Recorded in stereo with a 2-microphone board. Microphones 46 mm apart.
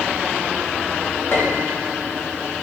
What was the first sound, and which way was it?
A piano, 55° left (ahead or behind).